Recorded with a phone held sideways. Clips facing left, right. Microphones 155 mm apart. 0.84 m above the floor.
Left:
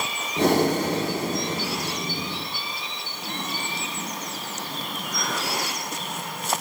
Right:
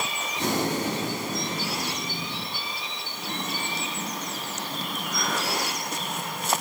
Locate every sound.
0.4 s breathing: 60° left (ahead or behind), 1.8 m